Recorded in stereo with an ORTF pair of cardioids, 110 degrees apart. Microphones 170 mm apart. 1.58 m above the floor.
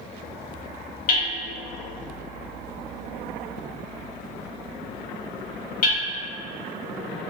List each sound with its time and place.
1.1 s hammering: 55° left, 1.9 m